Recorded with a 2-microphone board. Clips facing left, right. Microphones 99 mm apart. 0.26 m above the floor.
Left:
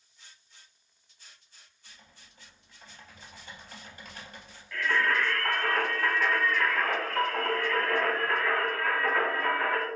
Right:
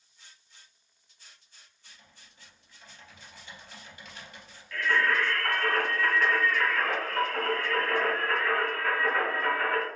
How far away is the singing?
About 1.3 m.